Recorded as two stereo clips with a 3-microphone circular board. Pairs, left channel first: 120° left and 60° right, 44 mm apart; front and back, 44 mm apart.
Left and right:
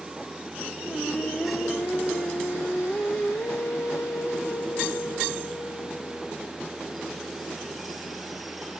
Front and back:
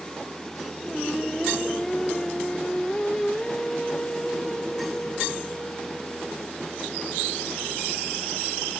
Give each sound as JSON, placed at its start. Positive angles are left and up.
{"t": 0.8, "sound": "singing", "azimuth_deg": 80, "distance_m": 1.5}